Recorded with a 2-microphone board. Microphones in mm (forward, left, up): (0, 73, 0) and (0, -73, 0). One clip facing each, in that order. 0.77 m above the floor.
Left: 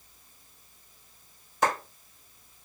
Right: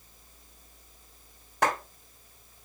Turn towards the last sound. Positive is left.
turn(degrees=-75)  # may be behind; listen again after turning